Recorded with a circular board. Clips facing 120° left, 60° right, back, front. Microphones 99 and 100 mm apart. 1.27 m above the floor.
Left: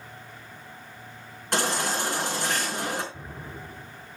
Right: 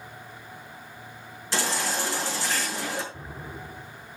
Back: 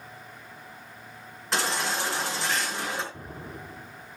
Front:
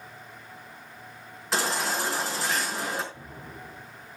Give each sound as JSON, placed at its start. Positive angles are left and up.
{"t": 1.5, "sound": "a baby crying", "azimuth_deg": 90, "distance_m": 4.5}
{"t": 3.1, "sound": "an explosion", "azimuth_deg": -150, "distance_m": 3.0}